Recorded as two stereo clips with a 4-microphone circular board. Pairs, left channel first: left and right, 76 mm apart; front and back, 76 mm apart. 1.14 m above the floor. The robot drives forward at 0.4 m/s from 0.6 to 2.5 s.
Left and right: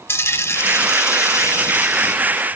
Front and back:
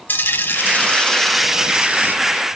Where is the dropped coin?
50° left, 0.7 m; by 2.2 s 130° left, 0.7 m.